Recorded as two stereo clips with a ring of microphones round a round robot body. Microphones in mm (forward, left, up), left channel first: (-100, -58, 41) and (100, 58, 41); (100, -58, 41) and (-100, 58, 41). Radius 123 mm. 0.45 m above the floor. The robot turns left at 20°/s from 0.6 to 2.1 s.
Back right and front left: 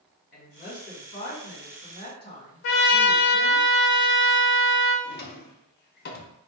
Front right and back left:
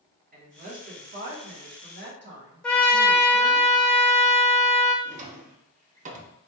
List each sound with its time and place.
0.3 s a woman speaking: 175° right, 1.7 m; by 3.6 s 155° left, 1.7 m
2.6 s a trumpet: 115° right, 0.5 m
5.0 s a drawer: 165° right, 0.6 m